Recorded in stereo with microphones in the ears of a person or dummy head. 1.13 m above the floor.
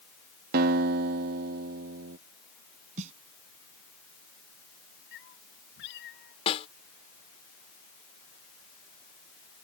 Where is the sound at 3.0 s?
40° right (ahead or behind).